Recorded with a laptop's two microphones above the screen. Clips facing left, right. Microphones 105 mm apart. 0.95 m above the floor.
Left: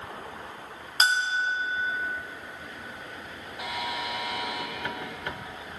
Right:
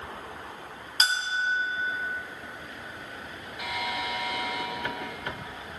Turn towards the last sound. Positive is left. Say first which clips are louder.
# even
turn(degrees=25)  # may be behind; listen again after turning